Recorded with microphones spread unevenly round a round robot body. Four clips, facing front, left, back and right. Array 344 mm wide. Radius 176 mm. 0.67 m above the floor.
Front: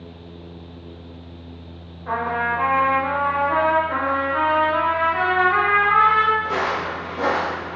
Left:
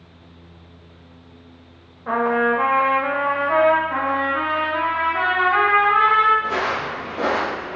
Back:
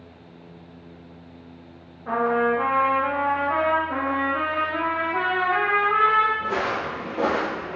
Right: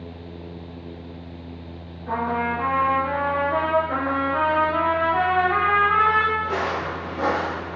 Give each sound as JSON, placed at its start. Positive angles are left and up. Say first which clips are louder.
{"t": 2.1, "sound": "a trumpet", "louder": "left 5 dB, back 2 dB", "azimuth_deg": 95, "distance_m": 0.6}
{"t": 3.9, "sound": "a trumpet", "louder": "left 2 dB, front 2 dB", "azimuth_deg": -70, "distance_m": 1.1}
{"t": 6.4, "sound": "footsteps", "louder": "left 2 dB, front 2 dB", "azimuth_deg": 175, "distance_m": 1.7}